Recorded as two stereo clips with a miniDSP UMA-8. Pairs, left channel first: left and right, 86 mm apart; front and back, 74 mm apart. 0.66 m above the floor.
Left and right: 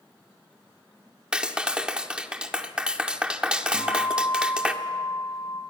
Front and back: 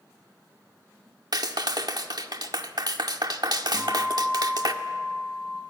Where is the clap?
170° right, 1.4 m.